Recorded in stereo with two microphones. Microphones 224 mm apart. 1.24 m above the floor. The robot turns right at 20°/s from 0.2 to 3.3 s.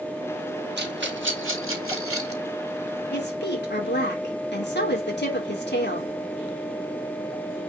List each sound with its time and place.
0.8 s a rattle: 50° right (ahead or behind), 3 m; by 2.4 s 85° right, 3 m
3.1 s a woman speaking: 45° left (ahead or behind), 4 m; by 6.1 s 50° left (ahead or behind), 4 m